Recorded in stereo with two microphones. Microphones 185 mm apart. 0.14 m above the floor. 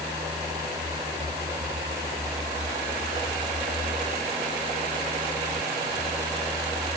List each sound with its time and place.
Only background noise.